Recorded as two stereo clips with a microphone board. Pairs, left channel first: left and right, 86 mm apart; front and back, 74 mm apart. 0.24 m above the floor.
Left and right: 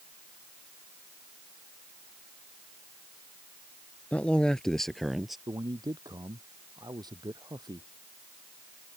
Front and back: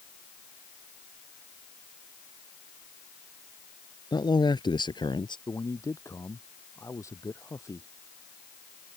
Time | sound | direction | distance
4.1 | a man speaking | 15° left | ?
5.5 | a man speaking | 50° right | ?